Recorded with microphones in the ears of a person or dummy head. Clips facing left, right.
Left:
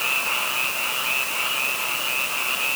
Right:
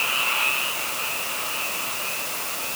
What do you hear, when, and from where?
Only background noise.